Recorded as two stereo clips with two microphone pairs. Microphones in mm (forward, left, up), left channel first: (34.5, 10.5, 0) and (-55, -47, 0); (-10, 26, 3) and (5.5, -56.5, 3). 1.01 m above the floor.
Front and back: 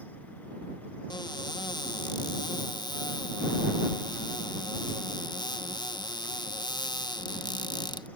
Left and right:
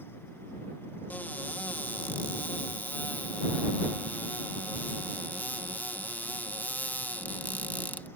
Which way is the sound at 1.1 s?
40° left.